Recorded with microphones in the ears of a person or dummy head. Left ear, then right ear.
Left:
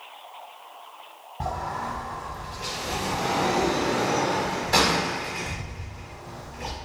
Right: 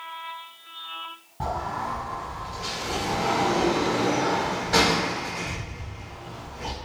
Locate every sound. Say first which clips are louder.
1.4 s a sliding door: right 1 dB; 20° left (ahead or behind), 1.0 m